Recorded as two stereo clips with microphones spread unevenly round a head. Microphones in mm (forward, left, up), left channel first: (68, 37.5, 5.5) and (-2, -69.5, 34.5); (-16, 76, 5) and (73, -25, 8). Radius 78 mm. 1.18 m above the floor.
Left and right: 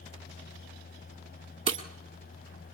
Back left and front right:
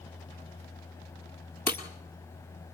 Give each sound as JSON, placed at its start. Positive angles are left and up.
{"t": 1.7, "sound": "breaking glass", "azimuth_deg": -155, "distance_m": 1.8}